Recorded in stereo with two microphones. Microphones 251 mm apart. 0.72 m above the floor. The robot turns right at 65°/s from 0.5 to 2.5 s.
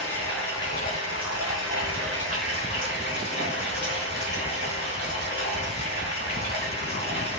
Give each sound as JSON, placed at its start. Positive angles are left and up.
{"t": 0.0, "sound": "running water", "azimuth_deg": 10, "distance_m": 1.3}